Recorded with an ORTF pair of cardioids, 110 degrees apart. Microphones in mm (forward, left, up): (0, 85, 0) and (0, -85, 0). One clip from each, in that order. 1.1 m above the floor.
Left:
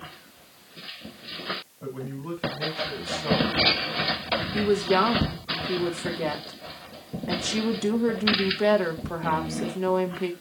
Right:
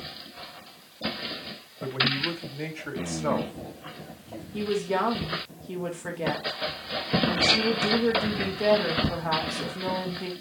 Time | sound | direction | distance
1.8 | a man speaking | 50° right | 3.5 m
4.5 | a woman speaking | 15° left | 2 m